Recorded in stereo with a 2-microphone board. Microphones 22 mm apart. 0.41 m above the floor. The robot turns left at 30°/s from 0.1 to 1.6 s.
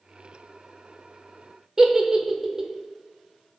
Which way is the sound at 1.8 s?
20° right (ahead or behind).